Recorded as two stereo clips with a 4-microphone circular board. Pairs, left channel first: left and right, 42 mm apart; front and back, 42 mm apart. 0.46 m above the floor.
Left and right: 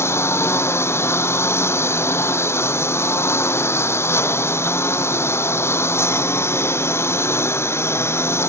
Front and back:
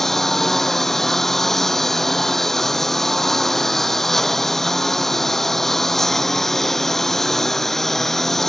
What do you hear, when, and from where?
0.0 s a lawn mower: 85° left